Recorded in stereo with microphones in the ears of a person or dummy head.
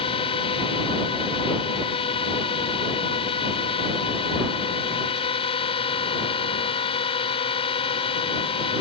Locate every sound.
0.0 s a drone: 25° left (ahead or behind)